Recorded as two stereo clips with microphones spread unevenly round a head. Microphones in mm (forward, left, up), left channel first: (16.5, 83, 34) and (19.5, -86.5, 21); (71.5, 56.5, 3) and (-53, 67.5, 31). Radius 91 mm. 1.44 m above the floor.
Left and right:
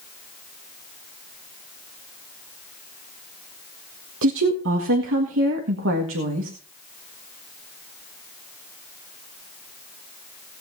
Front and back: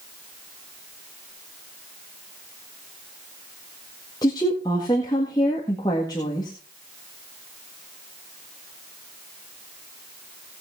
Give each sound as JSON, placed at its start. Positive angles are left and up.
{"t": 4.2, "sound": "a woman speaking", "azimuth_deg": -80, "distance_m": 1.7}